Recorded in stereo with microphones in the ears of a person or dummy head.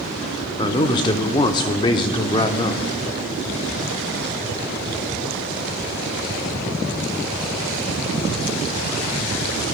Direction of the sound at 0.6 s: 25° left (ahead or behind).